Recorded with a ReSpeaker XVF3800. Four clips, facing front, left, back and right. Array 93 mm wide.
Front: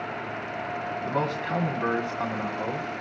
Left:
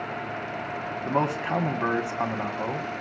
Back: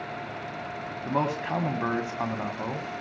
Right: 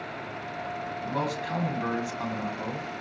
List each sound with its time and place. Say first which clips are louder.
1.0 s a man speaking: left 6 dB, back 2 dB; 100° left, 1.6 m